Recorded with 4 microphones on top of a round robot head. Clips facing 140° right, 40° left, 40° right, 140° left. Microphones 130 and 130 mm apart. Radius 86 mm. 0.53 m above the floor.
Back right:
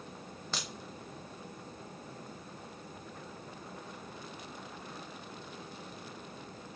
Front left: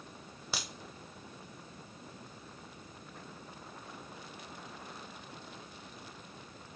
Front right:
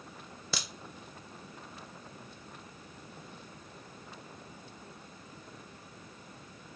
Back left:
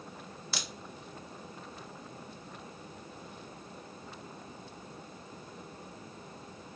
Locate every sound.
0.5 s a crack: 40° right, 0.6 m